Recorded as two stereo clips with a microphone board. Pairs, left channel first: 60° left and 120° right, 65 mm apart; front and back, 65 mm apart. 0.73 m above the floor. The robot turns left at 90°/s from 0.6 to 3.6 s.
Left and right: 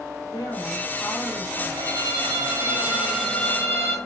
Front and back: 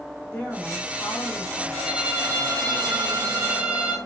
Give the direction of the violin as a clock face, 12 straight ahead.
3 o'clock.